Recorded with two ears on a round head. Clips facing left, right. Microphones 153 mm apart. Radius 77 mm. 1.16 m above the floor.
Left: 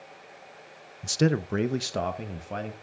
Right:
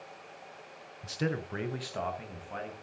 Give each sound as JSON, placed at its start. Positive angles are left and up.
{"t": 1.0, "sound": "a man speaking", "side_deg": 55, "distance_m": 0.5}